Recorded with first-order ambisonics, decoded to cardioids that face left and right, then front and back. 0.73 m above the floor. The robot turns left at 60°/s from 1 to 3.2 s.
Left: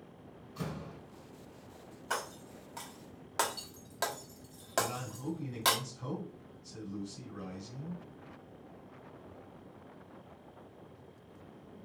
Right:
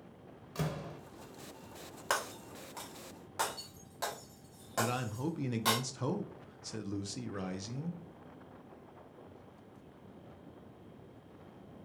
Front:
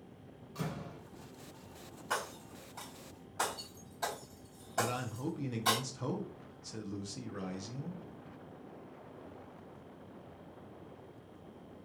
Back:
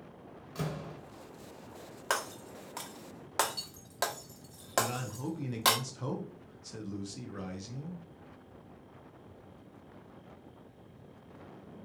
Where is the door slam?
110° right, 1.0 m.